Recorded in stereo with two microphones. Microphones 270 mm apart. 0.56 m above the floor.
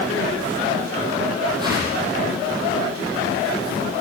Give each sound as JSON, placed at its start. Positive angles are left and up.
{"t": 1.6, "sound": "a whoosh", "side_deg": -15, "distance_m": 8.0}